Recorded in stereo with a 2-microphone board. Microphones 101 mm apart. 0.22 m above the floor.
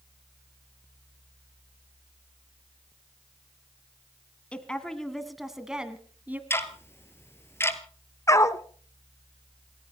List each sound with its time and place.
4.5 s a woman speaking: 10° left (ahead or behind), 2 m; by 6.4 s 15° right (ahead or behind), 1.9 m
6.5 s ticking: 25° left (ahead or behind), 1.3 m
8.3 s a dog barking: 30° left (ahead or behind), 0.8 m